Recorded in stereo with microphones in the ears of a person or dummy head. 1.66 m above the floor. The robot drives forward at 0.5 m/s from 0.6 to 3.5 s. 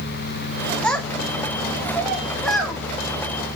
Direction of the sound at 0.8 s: 10° left (ahead or behind).